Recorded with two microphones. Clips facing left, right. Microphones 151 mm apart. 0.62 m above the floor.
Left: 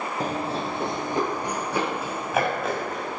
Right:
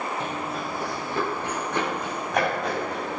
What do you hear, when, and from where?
0.2 s running footsteps: 40° left (ahead or behind), 1.1 m; by 3.2 s centre (ahead or behind), 3 m